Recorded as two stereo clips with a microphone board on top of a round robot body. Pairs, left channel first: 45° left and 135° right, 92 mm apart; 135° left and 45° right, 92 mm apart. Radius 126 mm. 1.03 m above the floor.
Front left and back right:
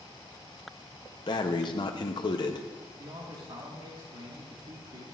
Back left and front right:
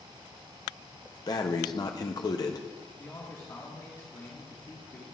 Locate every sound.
1.3 s breathing: 85° left, 0.7 m
3.0 s a man speaking: 170° right, 1.9 m